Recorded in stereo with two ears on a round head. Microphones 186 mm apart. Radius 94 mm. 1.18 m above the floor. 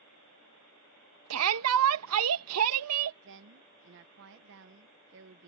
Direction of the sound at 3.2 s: 60° right (ahead or behind).